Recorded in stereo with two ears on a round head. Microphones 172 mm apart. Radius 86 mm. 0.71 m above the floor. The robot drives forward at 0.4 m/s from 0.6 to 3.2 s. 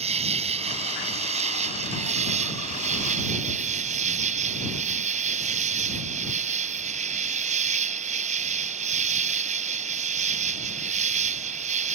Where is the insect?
35° right (ahead or behind); by 11.9 s 40° right (ahead or behind).